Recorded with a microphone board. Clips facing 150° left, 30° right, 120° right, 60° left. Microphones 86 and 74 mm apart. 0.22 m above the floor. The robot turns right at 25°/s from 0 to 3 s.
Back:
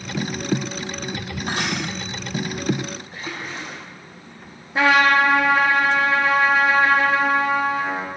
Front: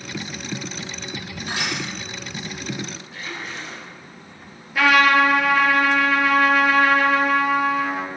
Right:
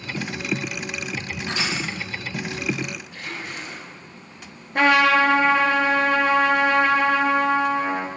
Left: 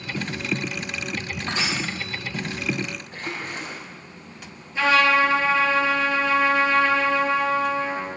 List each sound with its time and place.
1.5 s crushing: 105° left, 5 m; by 1.8 s 115° left, 5 m
3.1 s a splash: 105° left, 4 m
4.8 s a trumpet: 150° right, 2 m